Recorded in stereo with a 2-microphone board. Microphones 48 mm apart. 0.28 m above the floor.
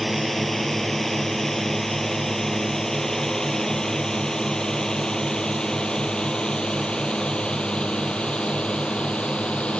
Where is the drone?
5° left (ahead or behind); by 9.8 s 25° left (ahead or behind).